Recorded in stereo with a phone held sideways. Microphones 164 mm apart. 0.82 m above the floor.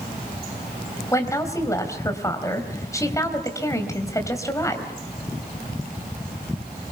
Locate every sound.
1.1 s a woman speaking: 20° left (ahead or behind), 3.5 m